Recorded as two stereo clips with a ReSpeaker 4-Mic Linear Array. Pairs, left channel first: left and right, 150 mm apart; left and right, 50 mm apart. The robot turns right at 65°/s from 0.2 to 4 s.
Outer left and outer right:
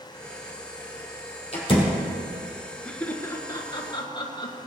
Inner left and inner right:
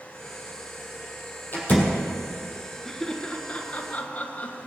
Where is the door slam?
45° left (ahead or behind), 3 m; by 2.0 s 15° left (ahead or behind), 3 m.